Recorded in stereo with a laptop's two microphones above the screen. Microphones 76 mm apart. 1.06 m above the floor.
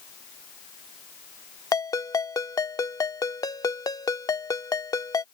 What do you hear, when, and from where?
1.7 s a ringtone: 50° left (ahead or behind)